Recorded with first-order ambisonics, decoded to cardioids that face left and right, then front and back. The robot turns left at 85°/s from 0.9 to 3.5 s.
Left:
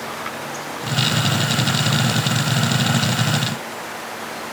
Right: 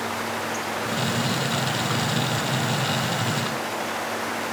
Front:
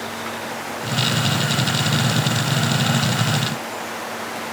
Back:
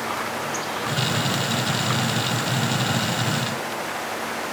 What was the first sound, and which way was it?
Only background noise.